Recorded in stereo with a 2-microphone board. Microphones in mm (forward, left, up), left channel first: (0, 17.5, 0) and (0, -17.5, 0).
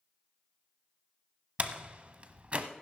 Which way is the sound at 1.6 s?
35° right (ahead or behind).